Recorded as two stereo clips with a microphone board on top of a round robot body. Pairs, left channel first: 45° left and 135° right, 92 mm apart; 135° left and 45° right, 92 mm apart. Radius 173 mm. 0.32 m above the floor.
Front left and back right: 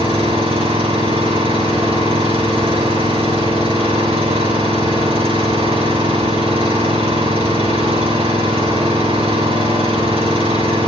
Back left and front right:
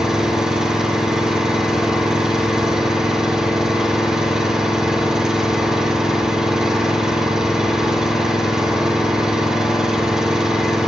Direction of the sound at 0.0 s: 130° right.